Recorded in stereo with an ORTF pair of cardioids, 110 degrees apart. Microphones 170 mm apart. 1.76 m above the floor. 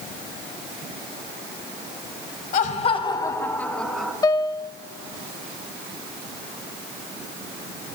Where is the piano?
25° left, 0.7 m.